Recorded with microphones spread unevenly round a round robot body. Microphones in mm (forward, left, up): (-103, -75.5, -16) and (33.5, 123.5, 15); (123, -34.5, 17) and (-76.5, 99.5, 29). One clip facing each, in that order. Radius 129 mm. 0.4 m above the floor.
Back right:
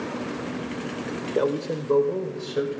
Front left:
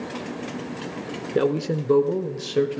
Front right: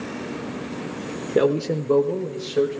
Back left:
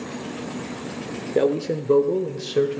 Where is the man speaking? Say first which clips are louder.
Front left 3 dB, front right 1 dB; 20° left, 0.9 m; by 2.8 s 105° left, 1.8 m.